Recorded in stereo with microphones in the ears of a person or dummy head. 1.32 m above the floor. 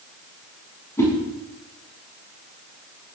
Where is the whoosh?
15° left (ahead or behind), 7 m.